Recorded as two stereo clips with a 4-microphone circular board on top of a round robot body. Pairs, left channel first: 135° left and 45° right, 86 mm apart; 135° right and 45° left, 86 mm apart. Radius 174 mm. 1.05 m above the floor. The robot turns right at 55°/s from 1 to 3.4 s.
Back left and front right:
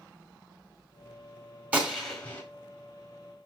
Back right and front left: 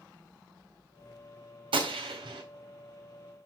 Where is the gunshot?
30° left, 1.6 m; by 2.4 s 70° left, 1.6 m.